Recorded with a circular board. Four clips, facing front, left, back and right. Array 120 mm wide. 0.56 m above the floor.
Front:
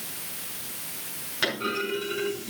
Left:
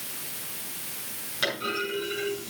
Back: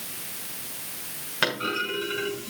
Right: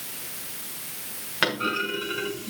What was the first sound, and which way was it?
A clunk, 120° right.